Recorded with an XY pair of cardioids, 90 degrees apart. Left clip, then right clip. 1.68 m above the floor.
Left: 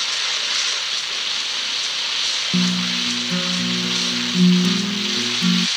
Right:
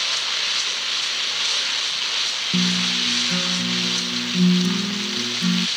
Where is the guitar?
15° left.